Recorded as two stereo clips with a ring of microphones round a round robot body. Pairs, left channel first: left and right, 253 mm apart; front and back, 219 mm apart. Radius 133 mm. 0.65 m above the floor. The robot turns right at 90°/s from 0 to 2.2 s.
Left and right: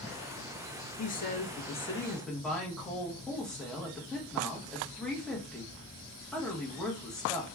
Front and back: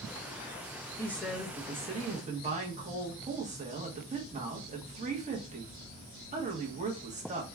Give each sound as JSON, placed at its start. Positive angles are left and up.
{"t": 1.0, "sound": "a woman speaking", "azimuth_deg": 65, "distance_m": 0.9}